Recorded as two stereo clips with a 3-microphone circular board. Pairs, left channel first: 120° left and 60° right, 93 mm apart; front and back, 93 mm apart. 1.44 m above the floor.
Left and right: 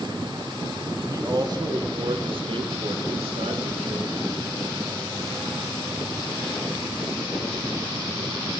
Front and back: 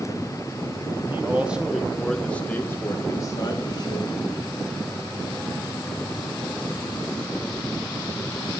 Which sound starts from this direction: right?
A man speaking, at 1.1 s.